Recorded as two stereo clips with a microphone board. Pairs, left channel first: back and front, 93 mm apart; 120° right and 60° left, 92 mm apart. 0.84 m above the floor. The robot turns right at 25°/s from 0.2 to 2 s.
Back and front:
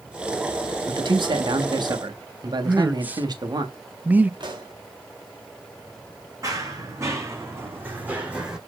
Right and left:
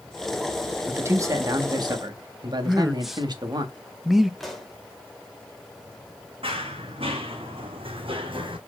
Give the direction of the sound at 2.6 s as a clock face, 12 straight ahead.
1 o'clock.